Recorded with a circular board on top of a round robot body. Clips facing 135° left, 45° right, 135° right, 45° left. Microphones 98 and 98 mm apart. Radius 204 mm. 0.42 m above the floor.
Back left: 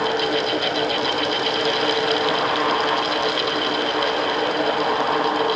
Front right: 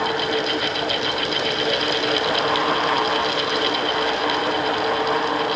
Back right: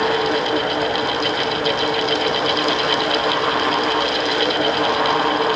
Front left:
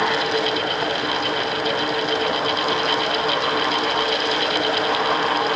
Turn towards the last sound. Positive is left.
No sound to turn to.